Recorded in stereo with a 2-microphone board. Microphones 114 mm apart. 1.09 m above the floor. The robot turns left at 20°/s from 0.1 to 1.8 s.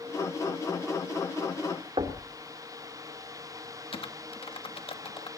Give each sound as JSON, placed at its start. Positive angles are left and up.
{"t": 2.0, "sound": "knocking", "side_deg": -55, "distance_m": 2.5}
{"t": 3.9, "sound": "typing on a keyboard", "side_deg": 60, "distance_m": 1.4}